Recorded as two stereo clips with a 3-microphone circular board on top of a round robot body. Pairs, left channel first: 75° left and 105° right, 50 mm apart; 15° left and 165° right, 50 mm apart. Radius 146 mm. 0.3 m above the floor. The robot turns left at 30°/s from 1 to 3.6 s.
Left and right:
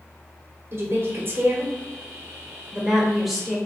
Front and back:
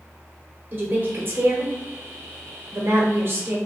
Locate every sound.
0.7 s a woman speaking: 120° right, 1.2 m; by 3.6 s 160° left, 1.2 m